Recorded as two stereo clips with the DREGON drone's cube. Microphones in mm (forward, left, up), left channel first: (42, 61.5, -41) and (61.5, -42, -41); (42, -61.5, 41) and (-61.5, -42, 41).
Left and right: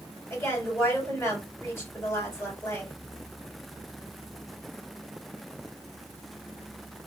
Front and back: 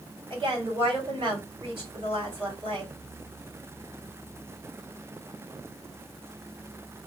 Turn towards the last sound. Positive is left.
turn(degrees=165)